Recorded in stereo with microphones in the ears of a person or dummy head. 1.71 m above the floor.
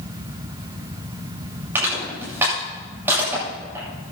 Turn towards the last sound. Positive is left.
turn(degrees=-15)  # may be behind; listen again after turning